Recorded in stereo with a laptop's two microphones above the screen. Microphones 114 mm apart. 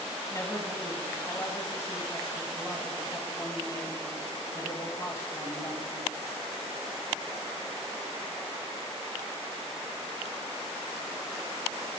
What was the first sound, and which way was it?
A man speaking, 25° left (ahead or behind).